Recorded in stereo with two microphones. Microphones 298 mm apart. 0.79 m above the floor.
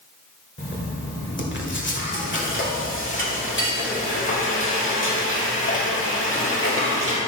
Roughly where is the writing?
Left.